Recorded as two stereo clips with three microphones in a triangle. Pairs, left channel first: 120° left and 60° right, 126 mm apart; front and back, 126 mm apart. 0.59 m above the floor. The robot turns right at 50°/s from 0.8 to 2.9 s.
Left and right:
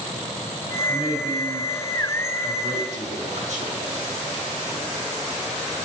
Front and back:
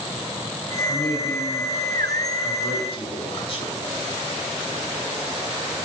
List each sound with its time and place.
0.9 s a man speaking: 140° right, 4.5 m; by 3.8 s 40° right, 4.5 m